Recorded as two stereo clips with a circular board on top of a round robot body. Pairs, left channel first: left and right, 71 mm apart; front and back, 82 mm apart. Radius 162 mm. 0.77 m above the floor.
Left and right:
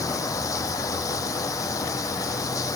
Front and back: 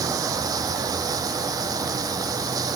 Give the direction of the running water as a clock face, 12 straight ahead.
8 o'clock.